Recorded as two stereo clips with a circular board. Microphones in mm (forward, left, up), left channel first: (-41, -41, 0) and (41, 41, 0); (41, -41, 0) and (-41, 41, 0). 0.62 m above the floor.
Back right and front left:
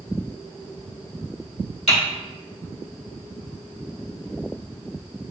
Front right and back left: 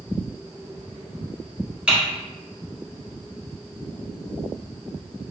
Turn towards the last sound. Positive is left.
turn(degrees=-150)